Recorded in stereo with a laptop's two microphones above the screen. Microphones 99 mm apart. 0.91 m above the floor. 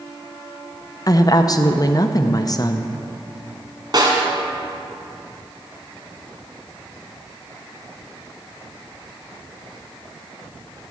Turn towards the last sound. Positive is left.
turn(degrees=-50)  # may be behind; listen again after turning